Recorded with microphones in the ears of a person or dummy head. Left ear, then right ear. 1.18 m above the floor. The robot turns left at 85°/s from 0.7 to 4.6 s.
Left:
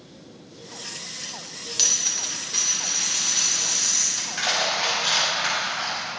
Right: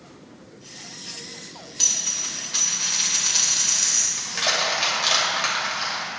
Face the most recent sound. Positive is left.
turn(degrees=-55)  # may be behind; listen again after turning